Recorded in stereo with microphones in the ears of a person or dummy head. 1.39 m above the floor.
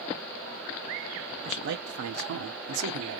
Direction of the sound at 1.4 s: 45° right (ahead or behind).